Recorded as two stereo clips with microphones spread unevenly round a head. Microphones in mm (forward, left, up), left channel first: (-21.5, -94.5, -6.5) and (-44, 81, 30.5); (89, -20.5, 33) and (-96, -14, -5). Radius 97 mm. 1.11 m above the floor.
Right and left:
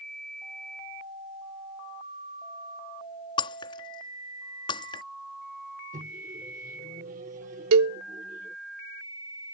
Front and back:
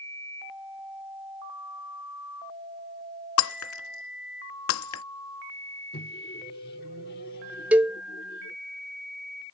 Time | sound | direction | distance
3.4 | breaking glass | 10° right | ?
5.9 | a microwave | 45° left | ?
7.7 | a cowbell | 95° left | ?